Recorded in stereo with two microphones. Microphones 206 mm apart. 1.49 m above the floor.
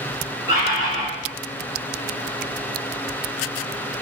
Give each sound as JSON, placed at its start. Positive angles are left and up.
{"t": 0.5, "sound": "a bird", "side_deg": 30, "distance_m": 1.3}